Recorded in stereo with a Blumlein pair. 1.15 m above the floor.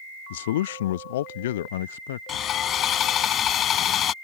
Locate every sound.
0.3 s a man speaking: 55° left
2.3 s sawing: 30° left